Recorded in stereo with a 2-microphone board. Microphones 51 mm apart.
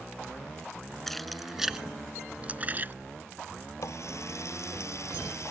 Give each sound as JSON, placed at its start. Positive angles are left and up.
{"t": 1.1, "sound": "keys jangling", "side_deg": 5}
{"t": 3.8, "sound": "a running tap", "side_deg": 65}